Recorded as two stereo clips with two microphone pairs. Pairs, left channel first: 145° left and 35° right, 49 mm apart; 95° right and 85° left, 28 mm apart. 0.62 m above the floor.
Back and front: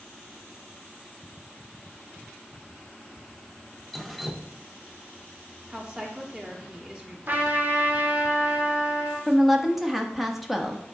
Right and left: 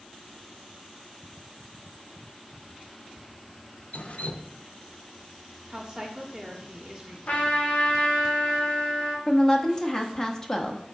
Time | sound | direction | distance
3.9 | dripping | 120° right | 0.6 m
5.7 | a woman speaking | 30° left | 1.7 m
7.3 | a trumpet | 80° right | 1.6 m
9.3 | a woman speaking | 115° right | 1.0 m